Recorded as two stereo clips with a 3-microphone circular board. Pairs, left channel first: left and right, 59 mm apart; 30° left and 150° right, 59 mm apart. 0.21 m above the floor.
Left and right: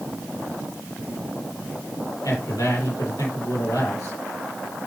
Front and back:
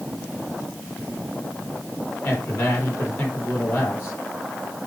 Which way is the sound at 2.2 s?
80° left.